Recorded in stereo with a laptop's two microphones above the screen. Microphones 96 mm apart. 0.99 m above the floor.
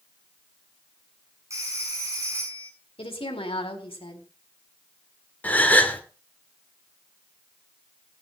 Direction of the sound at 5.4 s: 15° left (ahead or behind).